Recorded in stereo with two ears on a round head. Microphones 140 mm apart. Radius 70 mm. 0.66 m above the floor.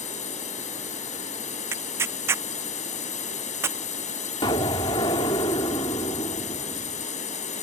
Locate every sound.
0.0 s a drone: 50° left (ahead or behind)
1.7 s tearing paper: 15° right (ahead or behind)
4.4 s an explosion: 30° left (ahead or behind)